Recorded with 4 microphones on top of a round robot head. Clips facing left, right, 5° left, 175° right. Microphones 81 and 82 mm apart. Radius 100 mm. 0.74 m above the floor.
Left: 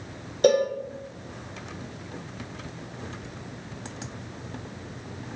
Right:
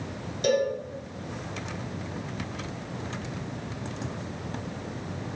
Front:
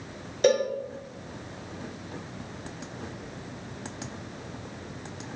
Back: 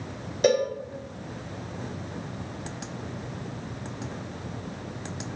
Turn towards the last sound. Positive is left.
turn(degrees=100)